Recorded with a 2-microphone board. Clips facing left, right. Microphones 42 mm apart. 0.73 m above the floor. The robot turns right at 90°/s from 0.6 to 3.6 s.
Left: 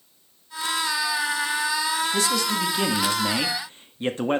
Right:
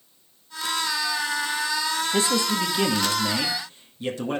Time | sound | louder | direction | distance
2.1 | a man speaking | right 1 dB | 60° right | 1.4 m